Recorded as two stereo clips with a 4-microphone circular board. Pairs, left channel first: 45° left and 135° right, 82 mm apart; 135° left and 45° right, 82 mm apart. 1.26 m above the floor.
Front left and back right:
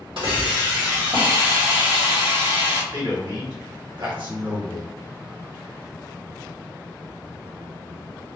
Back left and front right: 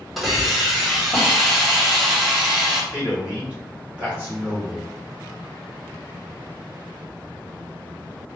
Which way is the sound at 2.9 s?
115° right.